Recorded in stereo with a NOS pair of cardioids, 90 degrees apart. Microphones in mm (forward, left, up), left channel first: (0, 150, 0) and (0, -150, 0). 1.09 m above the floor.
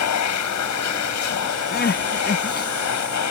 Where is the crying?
30° left.